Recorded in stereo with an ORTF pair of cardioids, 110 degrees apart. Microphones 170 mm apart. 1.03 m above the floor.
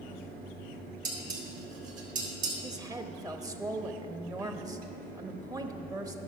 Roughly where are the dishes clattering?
Ahead right.